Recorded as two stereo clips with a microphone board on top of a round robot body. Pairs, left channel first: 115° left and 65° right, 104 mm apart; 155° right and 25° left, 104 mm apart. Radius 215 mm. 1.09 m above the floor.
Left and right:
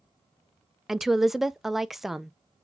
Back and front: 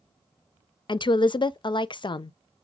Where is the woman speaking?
155° right, 0.5 m.